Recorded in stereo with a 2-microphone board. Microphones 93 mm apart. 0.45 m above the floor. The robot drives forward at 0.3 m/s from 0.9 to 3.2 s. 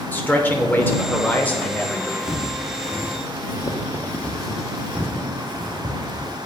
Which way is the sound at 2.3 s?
70° left (ahead or behind).